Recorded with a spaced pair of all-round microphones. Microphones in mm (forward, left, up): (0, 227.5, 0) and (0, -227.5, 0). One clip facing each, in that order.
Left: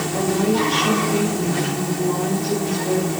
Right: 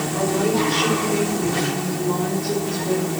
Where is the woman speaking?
50° left (ahead or behind), 5 m.